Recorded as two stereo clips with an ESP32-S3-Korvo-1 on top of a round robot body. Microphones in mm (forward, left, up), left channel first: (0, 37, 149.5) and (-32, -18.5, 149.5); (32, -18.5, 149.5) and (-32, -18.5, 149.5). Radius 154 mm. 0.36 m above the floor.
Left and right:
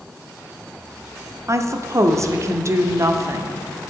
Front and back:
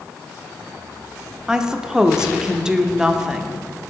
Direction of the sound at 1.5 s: 100° right.